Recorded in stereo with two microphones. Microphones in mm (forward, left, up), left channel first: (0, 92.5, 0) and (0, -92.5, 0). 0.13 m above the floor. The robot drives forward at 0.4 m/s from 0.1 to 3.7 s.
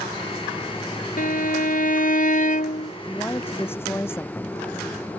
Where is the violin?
55° left (ahead or behind); by 2.9 s 45° left (ahead or behind).